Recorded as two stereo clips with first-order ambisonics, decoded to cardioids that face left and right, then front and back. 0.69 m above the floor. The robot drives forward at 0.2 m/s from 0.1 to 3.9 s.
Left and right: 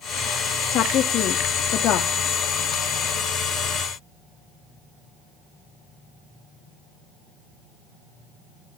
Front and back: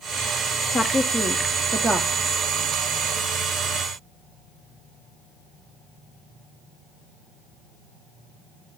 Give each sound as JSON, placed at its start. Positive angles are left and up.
{"t": 0.7, "sound": "a woman speaking", "azimuth_deg": 75, "distance_m": 0.8}